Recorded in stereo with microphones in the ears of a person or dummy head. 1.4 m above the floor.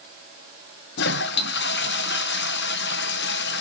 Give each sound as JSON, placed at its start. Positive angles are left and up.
{"t": 1.0, "sound": "a toilet flushing", "side_deg": 65, "distance_m": 0.8}